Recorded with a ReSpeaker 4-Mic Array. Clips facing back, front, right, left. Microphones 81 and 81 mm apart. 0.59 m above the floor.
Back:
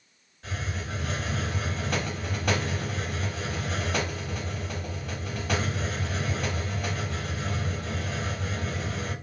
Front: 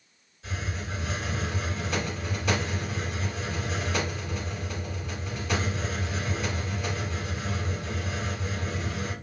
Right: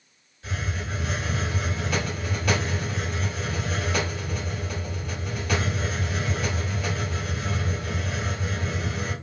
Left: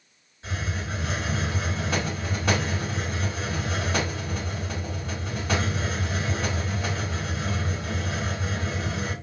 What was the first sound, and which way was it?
A hiss, 150° left.